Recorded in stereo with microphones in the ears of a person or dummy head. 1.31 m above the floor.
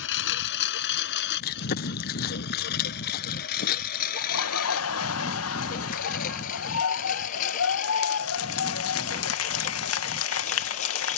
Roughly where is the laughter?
Left.